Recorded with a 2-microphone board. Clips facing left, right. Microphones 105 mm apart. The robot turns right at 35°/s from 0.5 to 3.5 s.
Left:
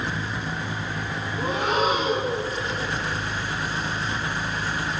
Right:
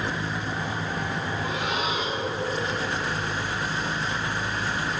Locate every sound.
1.4 s breathing: 40° left, 0.5 m; by 2.5 s 80° left, 0.5 m